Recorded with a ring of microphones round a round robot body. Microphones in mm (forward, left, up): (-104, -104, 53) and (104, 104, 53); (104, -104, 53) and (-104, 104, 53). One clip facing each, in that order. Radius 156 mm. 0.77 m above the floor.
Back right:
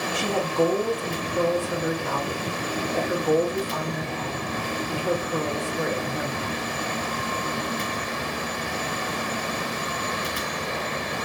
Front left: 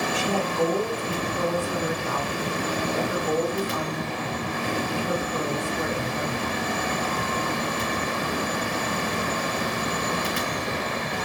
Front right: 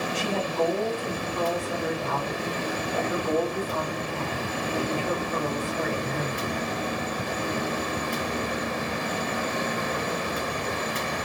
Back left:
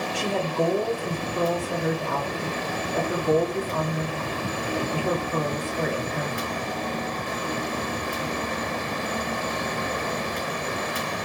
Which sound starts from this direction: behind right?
A woman speaking, at 0.1 s.